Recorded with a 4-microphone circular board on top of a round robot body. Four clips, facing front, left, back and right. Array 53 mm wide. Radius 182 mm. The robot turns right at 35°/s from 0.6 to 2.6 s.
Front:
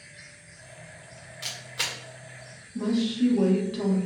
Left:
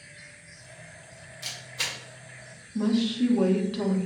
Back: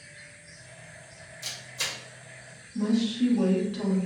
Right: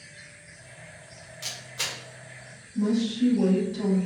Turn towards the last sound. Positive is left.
turn(degrees=80)